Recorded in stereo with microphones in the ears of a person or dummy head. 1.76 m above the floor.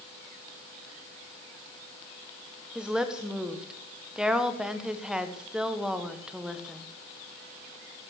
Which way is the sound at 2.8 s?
Centre (ahead or behind).